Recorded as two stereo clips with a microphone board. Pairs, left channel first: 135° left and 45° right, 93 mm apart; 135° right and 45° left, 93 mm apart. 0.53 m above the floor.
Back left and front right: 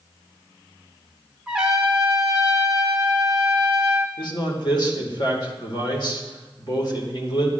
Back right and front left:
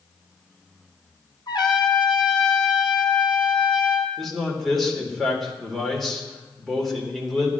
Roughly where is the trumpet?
Behind right.